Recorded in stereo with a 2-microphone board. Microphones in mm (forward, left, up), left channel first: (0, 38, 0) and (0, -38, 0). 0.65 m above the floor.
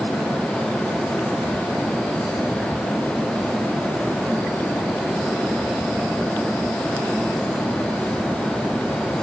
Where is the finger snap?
No finger snap in this recording.